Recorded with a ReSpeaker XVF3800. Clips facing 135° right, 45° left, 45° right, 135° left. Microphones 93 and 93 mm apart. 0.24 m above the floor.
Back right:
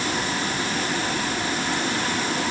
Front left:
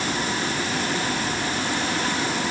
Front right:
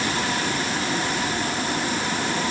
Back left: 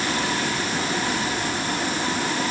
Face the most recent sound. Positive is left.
No sound to turn to.